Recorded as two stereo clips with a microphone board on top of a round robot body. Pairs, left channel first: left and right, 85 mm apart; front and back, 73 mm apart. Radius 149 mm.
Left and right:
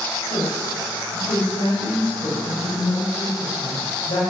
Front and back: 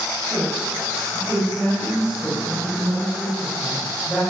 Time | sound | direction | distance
0.3 | a woman speaking | 85° left | 5.5 m